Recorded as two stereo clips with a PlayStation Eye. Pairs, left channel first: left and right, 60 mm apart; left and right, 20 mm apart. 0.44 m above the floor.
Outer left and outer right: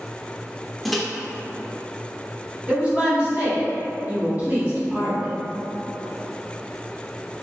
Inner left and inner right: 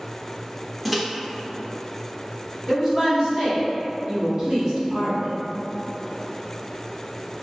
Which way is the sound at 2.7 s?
25° right (ahead or behind).